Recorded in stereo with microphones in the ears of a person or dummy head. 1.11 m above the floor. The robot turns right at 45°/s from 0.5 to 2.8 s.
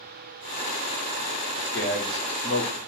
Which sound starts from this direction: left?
A man speaking, at 1.6 s.